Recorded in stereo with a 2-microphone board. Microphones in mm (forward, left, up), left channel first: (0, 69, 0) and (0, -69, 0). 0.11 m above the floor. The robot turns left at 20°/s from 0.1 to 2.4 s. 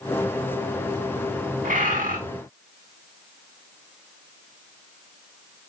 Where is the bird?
75° right (ahead or behind), 7 m; by 2.2 s 85° right, 7 m.